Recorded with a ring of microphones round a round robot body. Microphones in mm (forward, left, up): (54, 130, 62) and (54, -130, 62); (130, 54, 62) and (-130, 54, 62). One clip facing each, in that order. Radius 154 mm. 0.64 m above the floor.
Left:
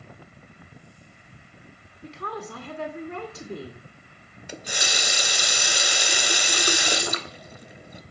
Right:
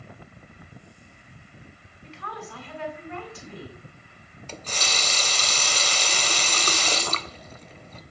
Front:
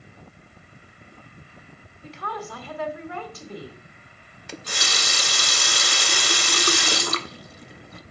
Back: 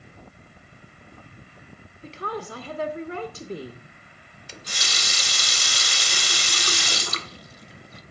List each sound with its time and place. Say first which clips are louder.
2.0 s a woman speaking: left 5 dB, back 2 dB; 125° left, 1.3 m
4.5 s a running tap: left 1 dB, front 6 dB; 15° left, 0.7 m